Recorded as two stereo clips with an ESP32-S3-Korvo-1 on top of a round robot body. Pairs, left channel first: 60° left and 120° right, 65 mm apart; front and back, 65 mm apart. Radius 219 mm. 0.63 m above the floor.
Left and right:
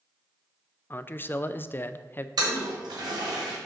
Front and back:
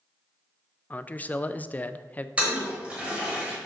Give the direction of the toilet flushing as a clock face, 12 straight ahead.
4 o'clock.